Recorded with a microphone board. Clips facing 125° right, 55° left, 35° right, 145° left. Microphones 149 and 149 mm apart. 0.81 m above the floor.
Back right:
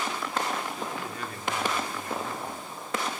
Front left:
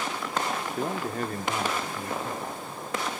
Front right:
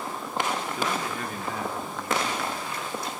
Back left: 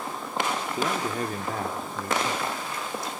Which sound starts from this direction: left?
A man speaking, at 0.8 s.